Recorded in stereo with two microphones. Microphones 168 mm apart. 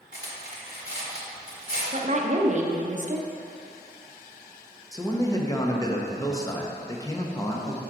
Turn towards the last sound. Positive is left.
turn(degrees=20)  # may be behind; listen again after turning